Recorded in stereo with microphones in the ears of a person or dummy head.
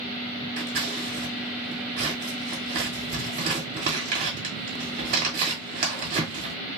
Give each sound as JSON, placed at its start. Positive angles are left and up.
{"t": 0.6, "sound": "scissors", "side_deg": -30, "distance_m": 1.4}